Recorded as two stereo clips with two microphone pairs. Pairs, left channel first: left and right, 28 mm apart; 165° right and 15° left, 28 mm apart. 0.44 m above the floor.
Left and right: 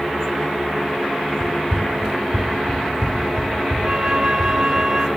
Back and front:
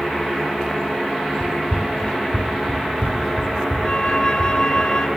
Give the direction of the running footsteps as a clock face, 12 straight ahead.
12 o'clock.